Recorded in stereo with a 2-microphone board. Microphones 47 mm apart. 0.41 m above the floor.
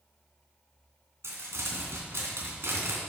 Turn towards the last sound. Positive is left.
turn(degrees=-80)